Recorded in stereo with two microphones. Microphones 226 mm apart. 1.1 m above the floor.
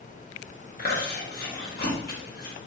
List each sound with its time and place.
0.8 s chewing: 45° left (ahead or behind), 0.9 m